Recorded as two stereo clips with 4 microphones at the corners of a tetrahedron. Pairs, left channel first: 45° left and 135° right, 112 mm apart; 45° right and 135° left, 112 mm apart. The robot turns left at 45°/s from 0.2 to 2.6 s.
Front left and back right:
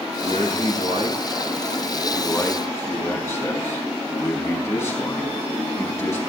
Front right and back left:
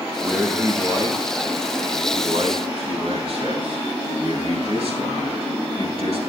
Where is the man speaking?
145° right, 4.5 m; by 6.2 s 110° left, 4.5 m.